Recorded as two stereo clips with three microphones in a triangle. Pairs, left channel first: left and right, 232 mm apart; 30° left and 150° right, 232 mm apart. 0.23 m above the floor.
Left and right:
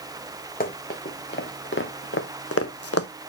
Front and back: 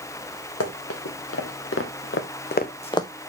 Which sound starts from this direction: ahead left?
Running footsteps, at 0.6 s.